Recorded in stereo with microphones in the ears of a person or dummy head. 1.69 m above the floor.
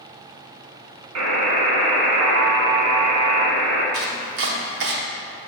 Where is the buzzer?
85° right, 1.7 m.